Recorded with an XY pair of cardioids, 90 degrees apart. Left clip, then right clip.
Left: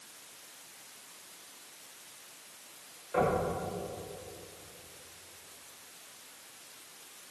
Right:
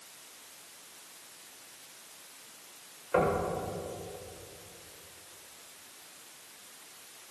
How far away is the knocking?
About 7 m.